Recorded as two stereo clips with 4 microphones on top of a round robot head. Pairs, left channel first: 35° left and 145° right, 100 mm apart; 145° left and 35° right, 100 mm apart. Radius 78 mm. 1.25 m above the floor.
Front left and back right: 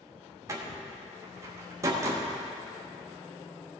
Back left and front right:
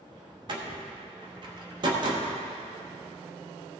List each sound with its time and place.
0.5 s a door slam: 80° right, 1.0 m